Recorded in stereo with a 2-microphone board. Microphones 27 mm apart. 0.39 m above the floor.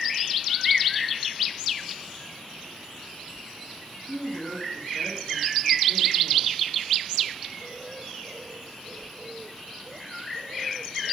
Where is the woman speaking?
20° right (ahead or behind), 3.5 m.